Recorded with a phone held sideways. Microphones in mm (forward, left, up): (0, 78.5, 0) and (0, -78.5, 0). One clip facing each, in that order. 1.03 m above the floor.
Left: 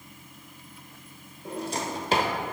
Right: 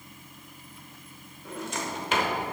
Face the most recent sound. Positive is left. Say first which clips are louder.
# left 3 dB
turn(degrees=35)  # may be behind; listen again after turning